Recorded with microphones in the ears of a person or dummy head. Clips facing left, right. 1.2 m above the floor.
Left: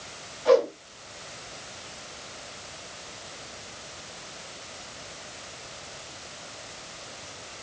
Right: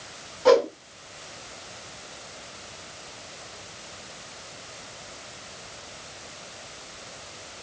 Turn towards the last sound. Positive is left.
turn(degrees=-60)  # may be behind; listen again after turning